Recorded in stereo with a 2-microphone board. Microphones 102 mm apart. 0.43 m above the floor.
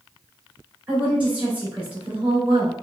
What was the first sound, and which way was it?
A woman speaking, 15° right (ahead or behind).